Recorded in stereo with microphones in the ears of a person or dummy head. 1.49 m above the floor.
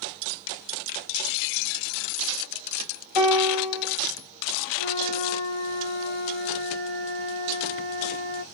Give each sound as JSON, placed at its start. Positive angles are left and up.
{"t": 3.1, "sound": "a piano", "side_deg": -15, "distance_m": 1.6}
{"t": 4.8, "sound": "a flute", "side_deg": -45, "distance_m": 1.6}